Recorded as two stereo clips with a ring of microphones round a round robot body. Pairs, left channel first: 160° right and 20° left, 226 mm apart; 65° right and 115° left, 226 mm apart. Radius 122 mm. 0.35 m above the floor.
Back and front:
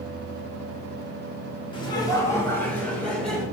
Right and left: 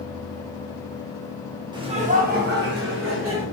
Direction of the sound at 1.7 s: 160° left.